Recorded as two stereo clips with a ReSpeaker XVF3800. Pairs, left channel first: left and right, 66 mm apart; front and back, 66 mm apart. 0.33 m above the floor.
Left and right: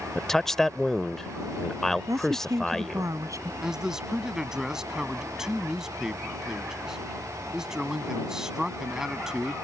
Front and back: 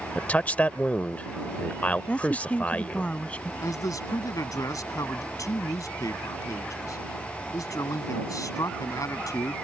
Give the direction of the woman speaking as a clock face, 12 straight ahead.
2 o'clock.